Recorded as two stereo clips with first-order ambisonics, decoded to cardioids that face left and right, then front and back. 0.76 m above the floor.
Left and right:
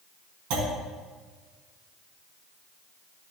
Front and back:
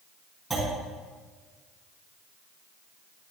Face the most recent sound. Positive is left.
turn(degrees=-85)